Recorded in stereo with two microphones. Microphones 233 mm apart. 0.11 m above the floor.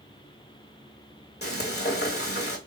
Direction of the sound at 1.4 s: 45° left (ahead or behind).